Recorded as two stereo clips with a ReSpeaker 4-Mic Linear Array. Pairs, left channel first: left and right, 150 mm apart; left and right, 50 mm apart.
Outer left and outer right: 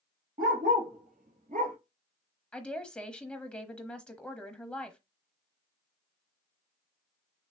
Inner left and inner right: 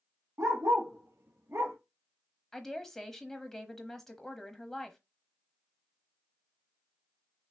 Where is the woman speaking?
5° left (ahead or behind), 1.0 m.